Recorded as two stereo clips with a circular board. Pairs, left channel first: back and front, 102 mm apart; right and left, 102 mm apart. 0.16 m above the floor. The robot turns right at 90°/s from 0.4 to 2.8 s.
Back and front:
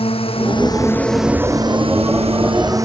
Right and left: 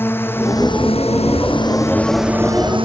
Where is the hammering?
No hammering in this recording.